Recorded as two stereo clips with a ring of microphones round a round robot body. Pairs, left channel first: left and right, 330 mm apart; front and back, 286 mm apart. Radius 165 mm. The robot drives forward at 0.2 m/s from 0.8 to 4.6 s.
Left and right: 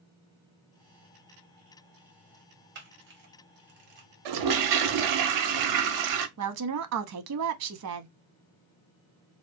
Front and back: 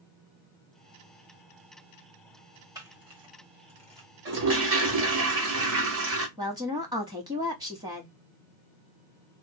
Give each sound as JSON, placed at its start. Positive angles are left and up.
{"t": 2.8, "sound": "a camera shutter", "azimuth_deg": -110, "distance_m": 1.3}
{"t": 4.2, "sound": "a toilet flushing", "azimuth_deg": -120, "distance_m": 0.6}
{"t": 6.4, "sound": "a woman speaking", "azimuth_deg": -105, "distance_m": 0.7}